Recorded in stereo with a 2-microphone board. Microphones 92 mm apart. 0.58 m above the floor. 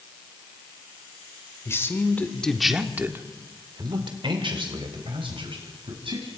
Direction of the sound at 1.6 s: 30° left (ahead or behind).